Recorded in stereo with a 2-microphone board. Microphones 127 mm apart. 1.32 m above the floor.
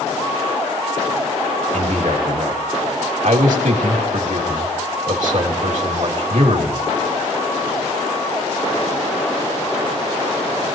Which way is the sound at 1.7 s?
75° right (ahead or behind).